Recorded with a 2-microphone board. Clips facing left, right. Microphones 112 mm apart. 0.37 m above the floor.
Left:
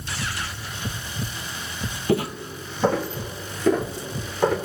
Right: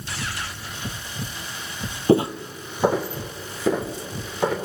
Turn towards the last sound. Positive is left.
turn(degrees=-5)  # may be behind; listen again after turning